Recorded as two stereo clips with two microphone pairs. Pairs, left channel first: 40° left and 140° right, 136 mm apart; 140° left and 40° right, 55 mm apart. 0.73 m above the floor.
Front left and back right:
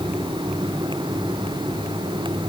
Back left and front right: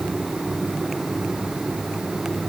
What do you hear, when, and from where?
Only background noise.